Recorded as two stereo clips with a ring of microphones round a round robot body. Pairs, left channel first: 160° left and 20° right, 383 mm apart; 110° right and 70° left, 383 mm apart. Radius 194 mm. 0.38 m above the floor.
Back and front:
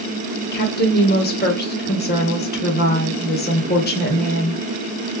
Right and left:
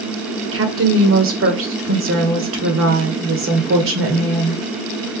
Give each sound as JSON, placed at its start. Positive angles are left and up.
{"t": 0.5, "sound": "a woman speaking", "azimuth_deg": 105, "distance_m": 1.4}